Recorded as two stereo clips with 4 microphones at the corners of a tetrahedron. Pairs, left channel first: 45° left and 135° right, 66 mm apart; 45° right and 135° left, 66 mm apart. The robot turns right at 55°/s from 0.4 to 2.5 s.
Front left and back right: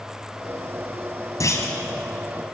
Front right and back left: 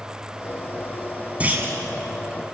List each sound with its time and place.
1.4 s a clunk: 70° left, 3 m; by 1.8 s 90° left, 3 m